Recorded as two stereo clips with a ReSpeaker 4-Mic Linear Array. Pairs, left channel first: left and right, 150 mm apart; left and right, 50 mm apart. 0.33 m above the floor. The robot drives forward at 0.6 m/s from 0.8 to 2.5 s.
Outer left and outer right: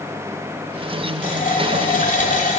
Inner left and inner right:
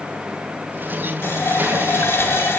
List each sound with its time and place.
1.2 s a running tap: 55° left (ahead or behind), 1.3 m